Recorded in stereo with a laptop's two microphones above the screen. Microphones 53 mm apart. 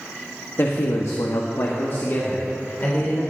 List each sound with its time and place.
0.6 s a man speaking: 45° left (ahead or behind), 1.0 m; by 3.2 s 35° left (ahead or behind), 3 m